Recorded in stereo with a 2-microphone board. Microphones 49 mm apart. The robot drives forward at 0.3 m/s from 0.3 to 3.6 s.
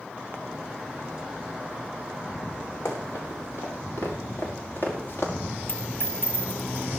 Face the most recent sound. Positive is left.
turn(degrees=45)  # may be behind; listen again after turning